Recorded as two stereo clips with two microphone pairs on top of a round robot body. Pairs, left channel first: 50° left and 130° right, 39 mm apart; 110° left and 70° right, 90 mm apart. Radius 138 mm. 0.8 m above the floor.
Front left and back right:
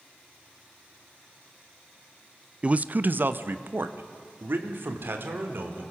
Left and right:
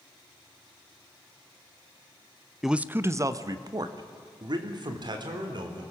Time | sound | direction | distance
2.6 | a man speaking | 170° right | 0.6 m